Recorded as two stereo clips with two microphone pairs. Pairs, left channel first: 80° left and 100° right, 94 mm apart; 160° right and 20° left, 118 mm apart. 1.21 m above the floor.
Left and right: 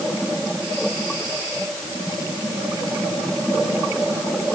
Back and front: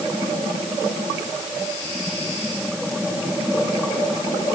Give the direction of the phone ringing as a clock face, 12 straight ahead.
I don't hear a phone ringing.